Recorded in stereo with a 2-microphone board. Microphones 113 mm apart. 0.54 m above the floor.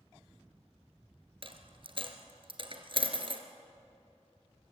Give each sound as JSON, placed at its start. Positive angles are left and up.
{"t": 1.4, "sound": "a dropped coin", "side_deg": -50, "distance_m": 1.8}